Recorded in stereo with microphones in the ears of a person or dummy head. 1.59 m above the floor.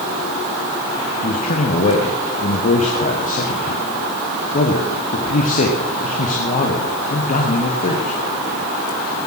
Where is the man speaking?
45° left (ahead or behind), 1.1 m.